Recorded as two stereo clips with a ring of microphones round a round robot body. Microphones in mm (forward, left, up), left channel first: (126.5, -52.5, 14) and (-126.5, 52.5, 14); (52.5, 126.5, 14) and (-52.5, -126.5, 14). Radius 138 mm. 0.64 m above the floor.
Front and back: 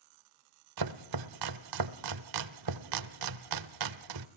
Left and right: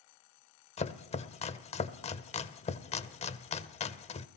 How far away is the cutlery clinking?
No cutlery clinking in this recording.